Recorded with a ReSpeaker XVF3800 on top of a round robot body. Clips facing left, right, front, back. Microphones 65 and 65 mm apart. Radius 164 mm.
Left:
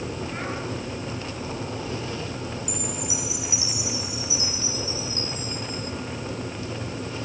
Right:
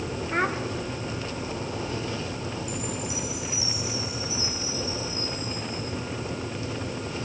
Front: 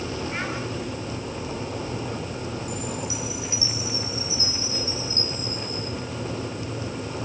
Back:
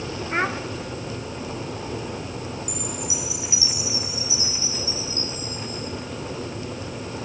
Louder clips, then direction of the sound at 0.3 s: Right 6 dB, back 10 dB; 130° right.